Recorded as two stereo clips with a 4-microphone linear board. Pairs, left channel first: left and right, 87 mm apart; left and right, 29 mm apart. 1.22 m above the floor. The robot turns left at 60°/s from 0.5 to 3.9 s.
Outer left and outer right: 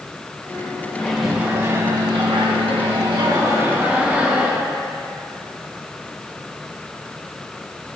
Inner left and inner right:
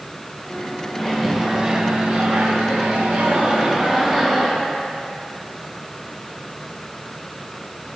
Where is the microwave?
15° left, 1.2 m; by 4.7 s 165° right, 1.2 m.